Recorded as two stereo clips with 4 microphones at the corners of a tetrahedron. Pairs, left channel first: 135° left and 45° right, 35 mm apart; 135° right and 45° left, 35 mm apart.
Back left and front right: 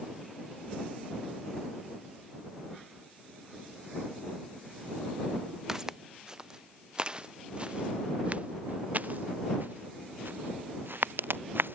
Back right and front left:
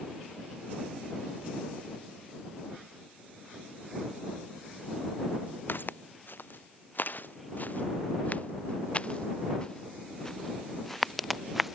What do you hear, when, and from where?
5.7 s footsteps: 120° right; by 11.8 s 45° right